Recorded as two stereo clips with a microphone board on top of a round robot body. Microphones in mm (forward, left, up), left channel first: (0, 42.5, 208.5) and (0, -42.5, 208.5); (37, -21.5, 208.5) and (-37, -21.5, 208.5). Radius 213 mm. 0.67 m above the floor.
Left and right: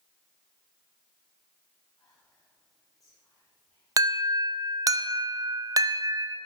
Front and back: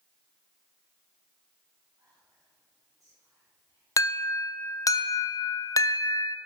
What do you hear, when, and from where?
2.0 s whispering: 135° left, 3.5 m
4.0 s an alarm: 45° right, 0.9 m